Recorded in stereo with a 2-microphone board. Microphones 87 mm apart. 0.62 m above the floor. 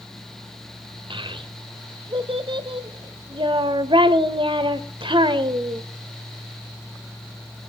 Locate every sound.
1.1 s a child speaking: 75° right (ahead or behind), 1.8 m